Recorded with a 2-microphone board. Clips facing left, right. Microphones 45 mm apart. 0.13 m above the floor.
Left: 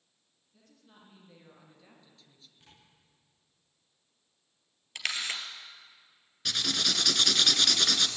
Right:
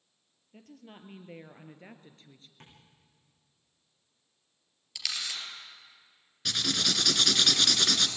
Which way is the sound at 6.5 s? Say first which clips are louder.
Right 1 dB; centre (ahead or behind).